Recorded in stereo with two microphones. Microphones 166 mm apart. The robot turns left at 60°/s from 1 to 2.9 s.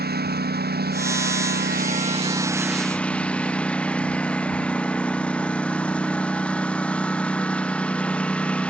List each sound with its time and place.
0.0 s a lawn mower: 70° right; by 8.7 s 175° left